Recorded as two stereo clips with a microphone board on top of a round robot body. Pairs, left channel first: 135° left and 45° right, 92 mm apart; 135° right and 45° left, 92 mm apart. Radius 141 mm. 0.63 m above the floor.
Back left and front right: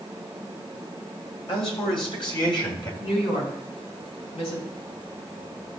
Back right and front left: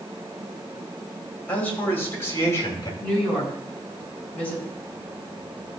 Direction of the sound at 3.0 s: 150° left.